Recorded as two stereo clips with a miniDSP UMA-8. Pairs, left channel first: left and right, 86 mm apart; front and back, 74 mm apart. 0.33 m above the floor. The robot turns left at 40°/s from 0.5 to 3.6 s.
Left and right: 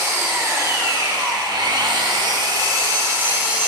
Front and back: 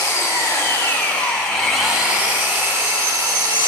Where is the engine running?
45° right, 0.8 m; by 3.7 s 165° right, 0.8 m.